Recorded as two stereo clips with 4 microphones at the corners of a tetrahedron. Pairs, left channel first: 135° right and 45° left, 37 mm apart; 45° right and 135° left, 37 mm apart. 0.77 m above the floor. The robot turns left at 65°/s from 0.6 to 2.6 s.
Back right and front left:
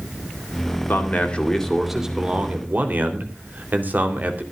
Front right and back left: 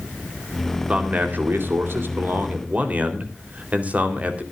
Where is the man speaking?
165° right, 3 m; by 4.4 s 80° left, 3 m.